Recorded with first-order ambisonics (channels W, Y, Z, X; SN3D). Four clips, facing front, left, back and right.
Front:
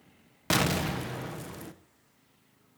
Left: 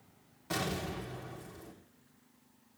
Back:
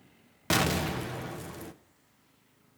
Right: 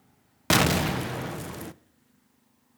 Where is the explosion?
85° right, 0.7 m.